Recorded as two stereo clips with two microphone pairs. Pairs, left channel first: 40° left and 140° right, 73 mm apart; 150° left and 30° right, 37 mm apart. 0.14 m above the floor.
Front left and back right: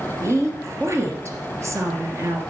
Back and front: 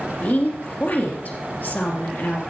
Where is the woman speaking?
175° left, 2.5 m.